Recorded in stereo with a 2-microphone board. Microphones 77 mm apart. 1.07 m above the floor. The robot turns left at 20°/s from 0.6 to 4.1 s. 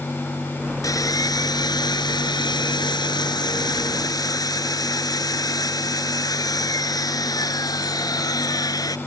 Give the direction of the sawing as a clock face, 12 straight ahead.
8 o'clock.